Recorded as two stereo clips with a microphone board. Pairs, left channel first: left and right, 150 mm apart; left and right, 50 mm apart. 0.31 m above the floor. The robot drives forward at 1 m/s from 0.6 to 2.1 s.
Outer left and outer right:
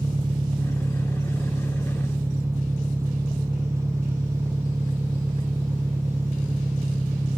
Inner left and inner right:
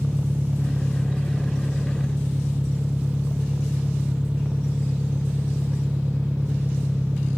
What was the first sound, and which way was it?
An engine running, 30° right (ahead or behind).